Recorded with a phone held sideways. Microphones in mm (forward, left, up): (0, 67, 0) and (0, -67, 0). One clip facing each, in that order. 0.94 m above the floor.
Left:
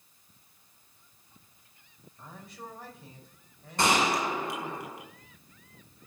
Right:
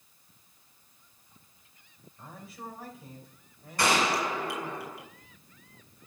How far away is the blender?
I don't hear a blender.